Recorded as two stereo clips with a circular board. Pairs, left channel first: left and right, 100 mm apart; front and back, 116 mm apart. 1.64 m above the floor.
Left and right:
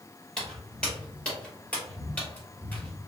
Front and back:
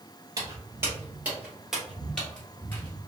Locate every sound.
0.4 s footsteps: 165° left, 1.8 m; by 3.0 s 35° left, 1.8 m